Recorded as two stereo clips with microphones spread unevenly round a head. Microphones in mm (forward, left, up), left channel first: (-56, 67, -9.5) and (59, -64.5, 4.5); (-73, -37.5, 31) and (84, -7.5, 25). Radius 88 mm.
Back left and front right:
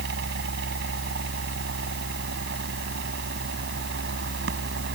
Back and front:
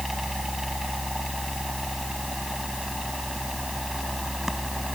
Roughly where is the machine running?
Right.